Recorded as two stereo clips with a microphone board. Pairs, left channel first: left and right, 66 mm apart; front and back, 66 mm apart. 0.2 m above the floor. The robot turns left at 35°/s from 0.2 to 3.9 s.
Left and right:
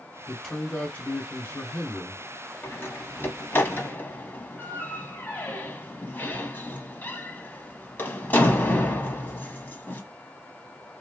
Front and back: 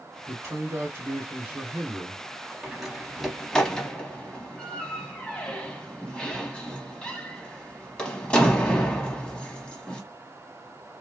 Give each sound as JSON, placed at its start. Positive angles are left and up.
{"t": 0.3, "sound": "a man speaking", "azimuth_deg": 165, "distance_m": 1.9}
{"t": 2.6, "sound": "a door slam", "azimuth_deg": 105, "distance_m": 0.8}